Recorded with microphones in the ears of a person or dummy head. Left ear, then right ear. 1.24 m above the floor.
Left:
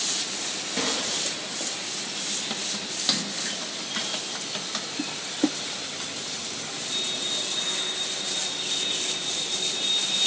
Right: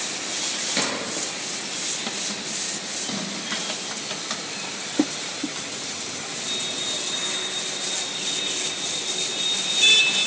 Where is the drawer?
30° right (ahead or behind), 5 m.